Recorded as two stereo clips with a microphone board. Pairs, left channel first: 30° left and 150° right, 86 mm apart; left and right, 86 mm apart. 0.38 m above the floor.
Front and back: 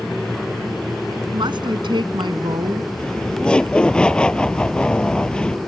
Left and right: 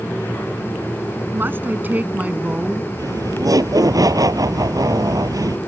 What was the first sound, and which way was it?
A woman speaking, 150° right.